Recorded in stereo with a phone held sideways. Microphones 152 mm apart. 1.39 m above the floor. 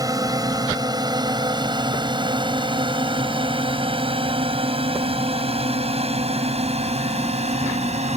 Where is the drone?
25° right (ahead or behind); by 8.2 s 45° right (ahead or behind).